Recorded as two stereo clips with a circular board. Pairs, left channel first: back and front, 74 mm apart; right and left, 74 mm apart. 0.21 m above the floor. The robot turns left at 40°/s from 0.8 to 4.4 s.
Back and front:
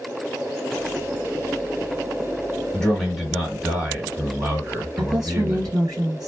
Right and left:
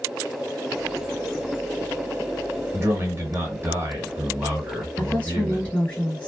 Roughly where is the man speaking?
Left.